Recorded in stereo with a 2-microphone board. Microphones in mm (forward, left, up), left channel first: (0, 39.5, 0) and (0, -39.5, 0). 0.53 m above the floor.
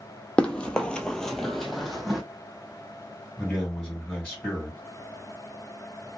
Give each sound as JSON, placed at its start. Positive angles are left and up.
{"t": 0.4, "sound": "running footsteps", "side_deg": 10, "distance_m": 0.7}
{"t": 3.4, "sound": "a man speaking", "side_deg": 10, "distance_m": 2.5}